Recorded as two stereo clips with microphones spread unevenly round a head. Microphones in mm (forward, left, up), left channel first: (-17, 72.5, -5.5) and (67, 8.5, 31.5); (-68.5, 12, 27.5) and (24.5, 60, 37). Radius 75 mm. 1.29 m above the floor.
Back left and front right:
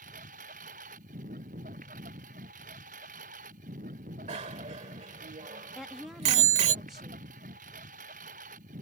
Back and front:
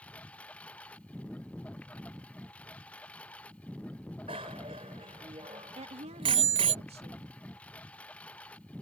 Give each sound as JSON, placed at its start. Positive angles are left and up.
{"t": 0.0, "sound": "a lawn mower", "azimuth_deg": -70}
{"t": 4.3, "sound": "a bicycle bell", "azimuth_deg": -25}
{"t": 5.8, "sound": "a woman speaking", "azimuth_deg": 50}